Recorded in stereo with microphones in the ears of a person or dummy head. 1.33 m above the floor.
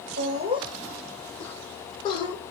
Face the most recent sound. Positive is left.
turn(degrees=35)  # may be behind; listen again after turning